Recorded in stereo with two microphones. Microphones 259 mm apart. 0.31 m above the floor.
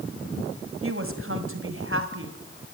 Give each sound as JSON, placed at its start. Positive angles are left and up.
{"t": 0.8, "sound": "a woman speaking", "side_deg": -55, "distance_m": 2.0}